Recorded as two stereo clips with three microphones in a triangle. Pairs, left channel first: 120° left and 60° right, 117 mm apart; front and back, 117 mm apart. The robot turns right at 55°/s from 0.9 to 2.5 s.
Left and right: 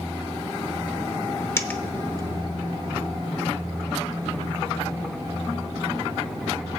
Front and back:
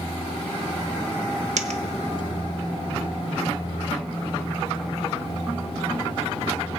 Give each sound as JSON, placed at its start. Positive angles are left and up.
{"t": 1.6, "sound": "a dropped coin", "azimuth_deg": -170, "distance_m": 0.8}